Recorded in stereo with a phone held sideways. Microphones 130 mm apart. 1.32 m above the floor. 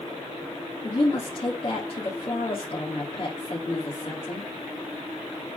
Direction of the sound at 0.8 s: 50° left (ahead or behind).